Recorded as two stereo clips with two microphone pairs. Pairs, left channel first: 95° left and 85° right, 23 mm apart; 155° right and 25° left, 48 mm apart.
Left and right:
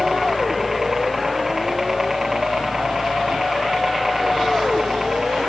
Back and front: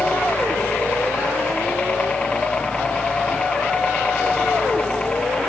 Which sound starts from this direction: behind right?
A helicopter, at 0.0 s.